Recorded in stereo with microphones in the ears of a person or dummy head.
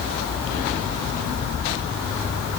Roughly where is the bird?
No bird in this recording.